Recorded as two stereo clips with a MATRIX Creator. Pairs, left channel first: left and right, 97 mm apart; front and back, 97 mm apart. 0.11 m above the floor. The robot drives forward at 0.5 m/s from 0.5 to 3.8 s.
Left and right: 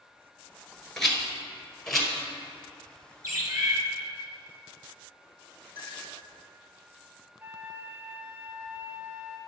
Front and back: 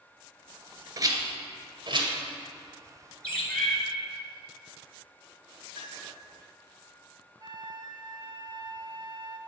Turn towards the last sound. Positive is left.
turn(degrees=-155)